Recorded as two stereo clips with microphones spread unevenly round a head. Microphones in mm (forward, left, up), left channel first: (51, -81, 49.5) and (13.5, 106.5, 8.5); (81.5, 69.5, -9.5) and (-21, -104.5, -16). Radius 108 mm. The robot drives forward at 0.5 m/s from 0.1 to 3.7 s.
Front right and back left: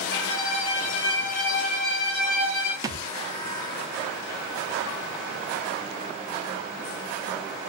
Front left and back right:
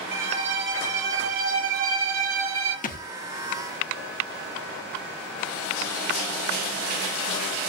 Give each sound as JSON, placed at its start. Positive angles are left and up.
{"t": 0.1, "sound": "a violin", "azimuth_deg": -95, "distance_m": 2.5}
{"t": 2.8, "sound": "a thud", "azimuth_deg": 25, "distance_m": 0.8}